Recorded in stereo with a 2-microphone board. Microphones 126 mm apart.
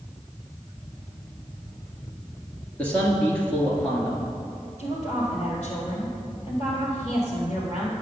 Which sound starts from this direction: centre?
A man speaking, at 2.8 s.